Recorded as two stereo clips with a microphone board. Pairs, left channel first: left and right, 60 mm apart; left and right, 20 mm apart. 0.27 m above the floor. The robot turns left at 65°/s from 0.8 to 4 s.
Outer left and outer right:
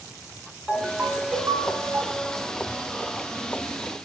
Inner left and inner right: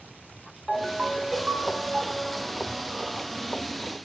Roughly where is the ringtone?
Ahead.